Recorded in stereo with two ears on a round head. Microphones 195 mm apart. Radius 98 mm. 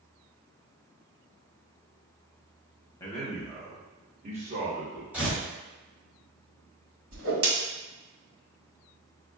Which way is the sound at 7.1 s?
70° right (ahead or behind).